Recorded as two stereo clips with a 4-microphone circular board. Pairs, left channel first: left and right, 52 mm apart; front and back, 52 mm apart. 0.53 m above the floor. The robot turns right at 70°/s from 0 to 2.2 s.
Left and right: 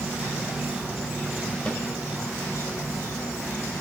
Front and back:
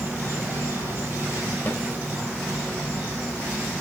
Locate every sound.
0.0 s an insect: 50° right, 4.5 m; by 3.8 s 100° left, 4.5 m
1.7 s a snare drum: 25° left, 0.9 m; by 1.8 s 35° left, 0.9 m